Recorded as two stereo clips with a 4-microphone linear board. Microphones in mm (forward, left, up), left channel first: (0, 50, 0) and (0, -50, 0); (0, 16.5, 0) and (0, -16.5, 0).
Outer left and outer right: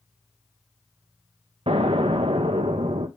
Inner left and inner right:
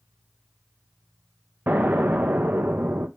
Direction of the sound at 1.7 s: 70° right (ahead or behind).